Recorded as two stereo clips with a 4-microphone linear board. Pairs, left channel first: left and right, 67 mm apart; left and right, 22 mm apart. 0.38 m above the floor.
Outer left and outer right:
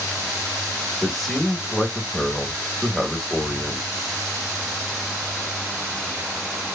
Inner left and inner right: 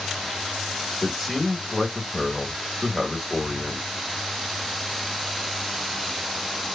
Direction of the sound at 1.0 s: Centre (ahead or behind).